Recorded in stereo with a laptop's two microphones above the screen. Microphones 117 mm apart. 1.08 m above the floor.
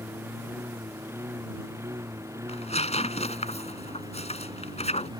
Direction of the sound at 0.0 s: 20° right (ahead or behind).